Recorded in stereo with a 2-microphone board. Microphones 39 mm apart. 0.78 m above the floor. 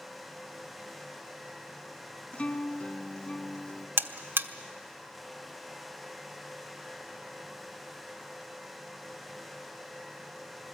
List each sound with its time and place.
2.3 s a guitar: 30° left (ahead or behind), 1.7 m
4.0 s a buzzer: 65° right (ahead or behind), 1.0 m